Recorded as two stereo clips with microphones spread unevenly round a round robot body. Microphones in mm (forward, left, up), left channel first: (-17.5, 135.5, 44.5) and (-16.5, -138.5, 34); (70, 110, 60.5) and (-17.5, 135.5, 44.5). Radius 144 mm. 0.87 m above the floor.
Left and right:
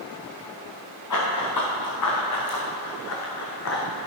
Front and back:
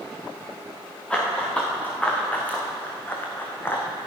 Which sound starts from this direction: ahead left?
Running footsteps, at 1.1 s.